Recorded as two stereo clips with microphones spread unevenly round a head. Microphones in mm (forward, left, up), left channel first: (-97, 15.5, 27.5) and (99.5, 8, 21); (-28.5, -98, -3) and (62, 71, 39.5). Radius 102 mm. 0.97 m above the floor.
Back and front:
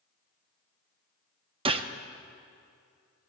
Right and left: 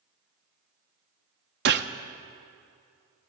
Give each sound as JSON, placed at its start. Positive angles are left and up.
{"t": 1.6, "sound": "a gunshot", "azimuth_deg": 60, "distance_m": 0.6}